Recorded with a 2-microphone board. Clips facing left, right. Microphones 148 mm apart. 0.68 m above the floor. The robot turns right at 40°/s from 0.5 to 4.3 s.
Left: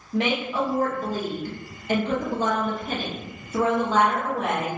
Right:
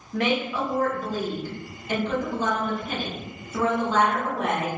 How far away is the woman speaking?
About 0.8 m.